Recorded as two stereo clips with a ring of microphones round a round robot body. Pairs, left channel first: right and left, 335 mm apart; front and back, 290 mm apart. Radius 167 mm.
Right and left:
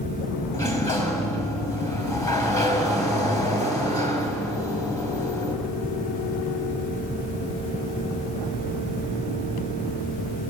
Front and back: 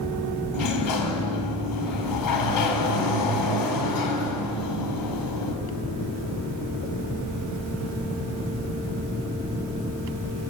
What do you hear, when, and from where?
0.5 s a sliding door: 10° right, 5 m